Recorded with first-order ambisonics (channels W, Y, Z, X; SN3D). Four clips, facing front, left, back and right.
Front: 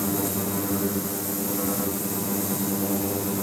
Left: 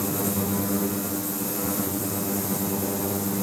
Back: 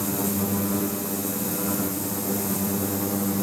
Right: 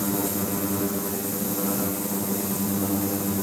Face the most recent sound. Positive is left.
No sound to turn to.